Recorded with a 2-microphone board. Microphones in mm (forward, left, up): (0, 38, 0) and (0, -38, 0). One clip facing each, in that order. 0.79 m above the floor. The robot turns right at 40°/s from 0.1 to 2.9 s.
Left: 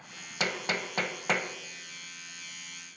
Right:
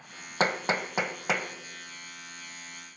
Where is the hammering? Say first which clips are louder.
Right 5 dB; 35° right (ahead or behind), 1.3 m; by 3.0 s 60° left (ahead or behind), 1.3 m.